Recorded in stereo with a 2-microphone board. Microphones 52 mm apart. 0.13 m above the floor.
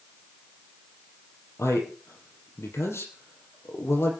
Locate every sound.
1.6 s a man speaking: 70° left (ahead or behind), 4.5 m